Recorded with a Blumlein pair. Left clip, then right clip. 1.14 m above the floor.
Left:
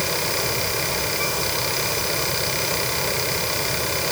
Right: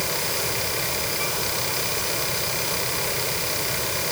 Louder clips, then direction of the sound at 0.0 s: Left 3 dB; 10° left.